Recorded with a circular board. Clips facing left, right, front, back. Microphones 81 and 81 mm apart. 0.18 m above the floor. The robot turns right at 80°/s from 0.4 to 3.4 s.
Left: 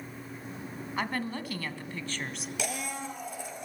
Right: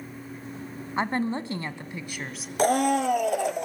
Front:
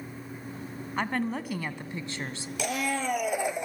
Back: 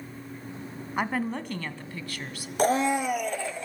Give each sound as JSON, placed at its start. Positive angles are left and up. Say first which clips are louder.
{"t": 1.0, "sound": "a woman speaking", "louder": "right 7 dB, back 1 dB", "azimuth_deg": -115, "distance_m": 1.1}
{"t": 2.6, "sound": "a blender", "louder": "right 16 dB, back 7 dB", "azimuth_deg": -140, "distance_m": 1.0}